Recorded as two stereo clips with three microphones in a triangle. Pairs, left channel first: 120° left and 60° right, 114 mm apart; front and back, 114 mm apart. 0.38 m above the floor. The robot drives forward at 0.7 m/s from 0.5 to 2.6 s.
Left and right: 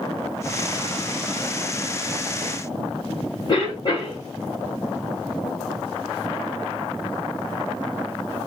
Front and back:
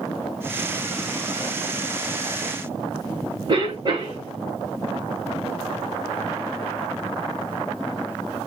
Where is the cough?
145° left, 1.9 m.